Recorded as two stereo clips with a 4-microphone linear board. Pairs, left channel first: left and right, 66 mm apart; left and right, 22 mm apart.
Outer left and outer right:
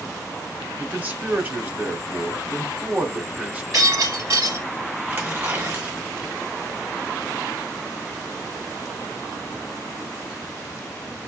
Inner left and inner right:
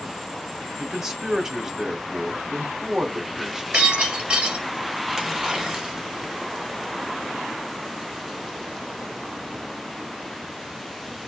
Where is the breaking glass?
65° right (ahead or behind), 3 m.